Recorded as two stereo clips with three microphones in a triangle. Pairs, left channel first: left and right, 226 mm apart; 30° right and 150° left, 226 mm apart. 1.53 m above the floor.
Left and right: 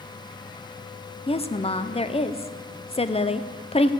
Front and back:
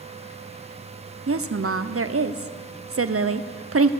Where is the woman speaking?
150° left, 0.7 m.